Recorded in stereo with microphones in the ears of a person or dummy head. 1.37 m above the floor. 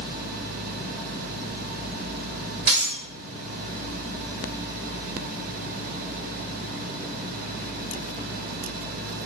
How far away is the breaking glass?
About 1.8 m.